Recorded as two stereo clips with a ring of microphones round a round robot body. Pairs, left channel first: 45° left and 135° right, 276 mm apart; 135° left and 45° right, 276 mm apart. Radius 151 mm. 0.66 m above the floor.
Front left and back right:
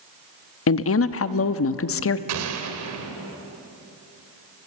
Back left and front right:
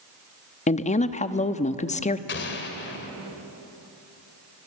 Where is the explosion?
170° right, 2 m.